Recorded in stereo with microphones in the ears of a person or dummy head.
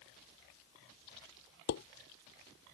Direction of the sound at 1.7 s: 55° left (ahead or behind).